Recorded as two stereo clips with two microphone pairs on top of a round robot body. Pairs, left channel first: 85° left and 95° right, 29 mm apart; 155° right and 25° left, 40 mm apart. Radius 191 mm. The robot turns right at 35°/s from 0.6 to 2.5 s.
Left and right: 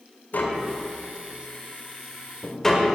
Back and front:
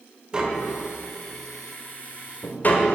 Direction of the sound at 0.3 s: 90° left.